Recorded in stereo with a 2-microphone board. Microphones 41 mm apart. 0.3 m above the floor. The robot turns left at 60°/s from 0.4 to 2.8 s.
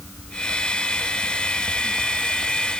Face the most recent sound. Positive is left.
No sound to turn to.